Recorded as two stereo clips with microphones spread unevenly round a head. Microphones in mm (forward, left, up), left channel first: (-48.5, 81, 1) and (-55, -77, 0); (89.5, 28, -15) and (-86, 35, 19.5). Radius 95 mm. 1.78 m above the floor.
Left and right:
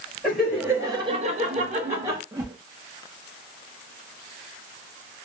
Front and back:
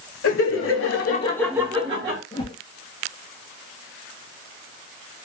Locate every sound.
0.2 s laughter: 5° right, 1.5 m; by 2.2 s 145° right, 1.3 m
2.3 s a whoosh: 60° right, 0.7 m